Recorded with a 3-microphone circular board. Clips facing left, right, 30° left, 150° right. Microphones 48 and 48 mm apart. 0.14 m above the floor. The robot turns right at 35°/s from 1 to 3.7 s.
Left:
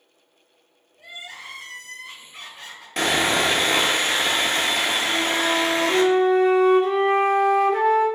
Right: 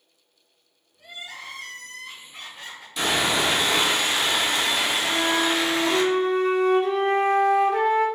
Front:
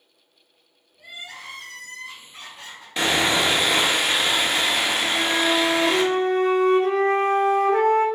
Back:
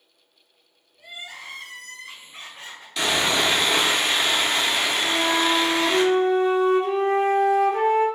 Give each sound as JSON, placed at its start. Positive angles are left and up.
{"t": 1.0, "sound": "crying", "azimuth_deg": 130, "distance_m": 1.1}
{"t": 3.0, "sound": "sawing", "azimuth_deg": 85, "distance_m": 0.7}
{"t": 5.0, "sound": "a flute", "azimuth_deg": 0, "distance_m": 0.8}